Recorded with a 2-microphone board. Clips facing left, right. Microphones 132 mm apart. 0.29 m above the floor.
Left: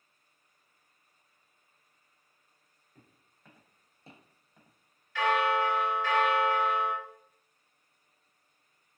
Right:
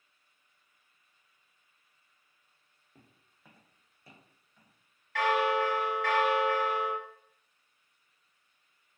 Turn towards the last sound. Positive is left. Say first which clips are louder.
# even
turn(degrees=-65)  # may be behind; listen again after turning